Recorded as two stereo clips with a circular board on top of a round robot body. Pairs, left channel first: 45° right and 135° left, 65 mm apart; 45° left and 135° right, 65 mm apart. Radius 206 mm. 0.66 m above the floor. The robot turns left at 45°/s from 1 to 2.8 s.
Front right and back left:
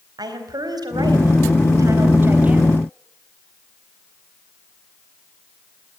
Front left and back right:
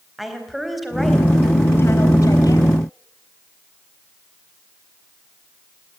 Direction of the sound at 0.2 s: 135° left.